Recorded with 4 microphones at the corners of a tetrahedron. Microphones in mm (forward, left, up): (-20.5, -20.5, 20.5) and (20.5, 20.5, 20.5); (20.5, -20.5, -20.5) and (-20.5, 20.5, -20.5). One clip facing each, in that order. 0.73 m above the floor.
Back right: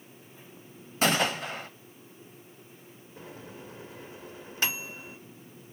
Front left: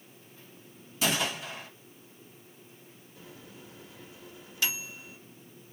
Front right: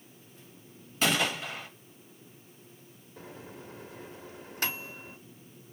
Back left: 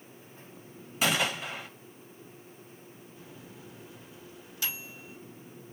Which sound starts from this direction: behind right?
A gunshot, at 1.0 s.